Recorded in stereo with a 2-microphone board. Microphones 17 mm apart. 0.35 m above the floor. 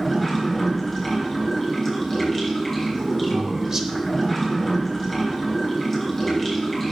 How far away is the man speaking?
About 1.0 m.